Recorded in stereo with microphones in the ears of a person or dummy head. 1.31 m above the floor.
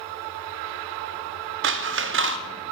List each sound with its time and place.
1.6 s scissors: 55° right (ahead or behind), 0.5 m